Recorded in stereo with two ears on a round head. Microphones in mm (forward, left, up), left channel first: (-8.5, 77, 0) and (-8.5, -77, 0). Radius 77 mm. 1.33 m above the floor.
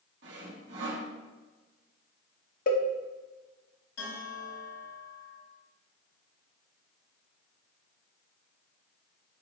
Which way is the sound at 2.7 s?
55° left (ahead or behind).